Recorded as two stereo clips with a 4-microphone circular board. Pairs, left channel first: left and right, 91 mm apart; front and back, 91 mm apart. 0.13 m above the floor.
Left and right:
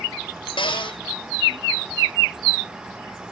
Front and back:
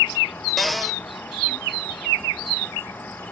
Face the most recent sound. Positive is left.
turn(degrees=90)